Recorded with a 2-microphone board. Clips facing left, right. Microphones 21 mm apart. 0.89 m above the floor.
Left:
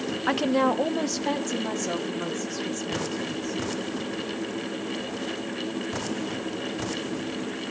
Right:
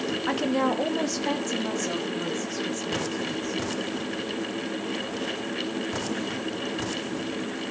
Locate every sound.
0.3 s a woman speaking: 20° left (ahead or behind), 0.6 m; by 3.6 s centre (ahead or behind), 4 m